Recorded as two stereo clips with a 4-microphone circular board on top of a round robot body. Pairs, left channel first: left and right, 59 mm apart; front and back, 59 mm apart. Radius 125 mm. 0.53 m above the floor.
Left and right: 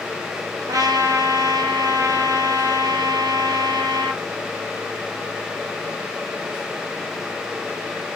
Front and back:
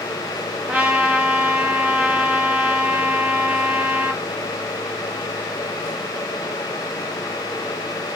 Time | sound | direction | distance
0.7 | a trumpet | 105° right | 0.7 m